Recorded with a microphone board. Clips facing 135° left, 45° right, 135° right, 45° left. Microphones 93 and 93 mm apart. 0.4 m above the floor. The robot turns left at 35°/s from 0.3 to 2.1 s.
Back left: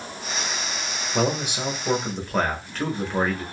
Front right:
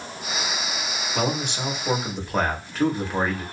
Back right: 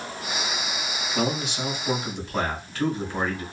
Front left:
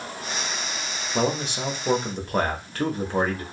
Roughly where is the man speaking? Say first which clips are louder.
Back left 2 dB, front left 2 dB; left.